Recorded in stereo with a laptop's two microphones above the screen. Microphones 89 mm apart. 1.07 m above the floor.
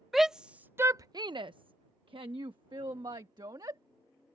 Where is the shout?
Centre (ahead or behind); by 3.8 s 50° right (ahead or behind).